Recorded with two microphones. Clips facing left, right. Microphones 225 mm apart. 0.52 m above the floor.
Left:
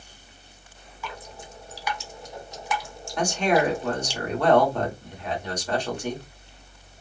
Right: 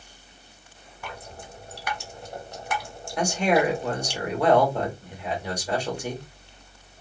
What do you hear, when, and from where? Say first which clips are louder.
1.0 s dripping: even; 55° right (ahead or behind), 1.0 m
3.2 s a man speaking: even; 10° right (ahead or behind), 2.5 m